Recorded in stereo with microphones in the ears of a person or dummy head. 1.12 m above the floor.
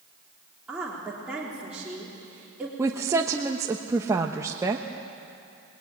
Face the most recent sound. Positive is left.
turn(degrees=-15)  # may be behind; listen again after turning